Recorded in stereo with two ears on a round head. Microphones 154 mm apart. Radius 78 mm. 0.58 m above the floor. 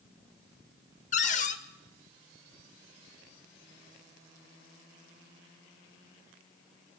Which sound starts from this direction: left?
A cupboard door, at 1.1 s.